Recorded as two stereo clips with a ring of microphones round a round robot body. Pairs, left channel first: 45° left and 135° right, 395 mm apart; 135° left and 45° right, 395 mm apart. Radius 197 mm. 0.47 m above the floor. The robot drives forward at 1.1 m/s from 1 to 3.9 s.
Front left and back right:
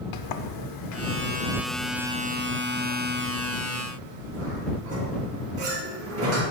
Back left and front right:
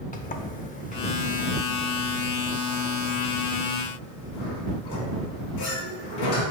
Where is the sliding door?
65° left, 0.8 m; by 6.4 s 170° left, 3 m.